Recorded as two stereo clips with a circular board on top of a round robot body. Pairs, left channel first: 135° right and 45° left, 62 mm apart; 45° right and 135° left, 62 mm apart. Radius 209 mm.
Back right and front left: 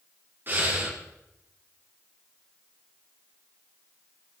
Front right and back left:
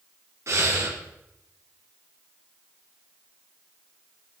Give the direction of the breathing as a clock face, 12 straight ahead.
9 o'clock.